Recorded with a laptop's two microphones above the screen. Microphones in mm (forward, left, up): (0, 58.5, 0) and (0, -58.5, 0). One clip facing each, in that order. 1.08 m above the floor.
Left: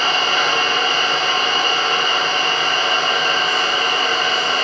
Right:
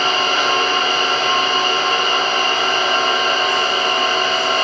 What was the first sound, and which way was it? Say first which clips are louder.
An engine running: right 1 dB; 75° right (ahead or behind).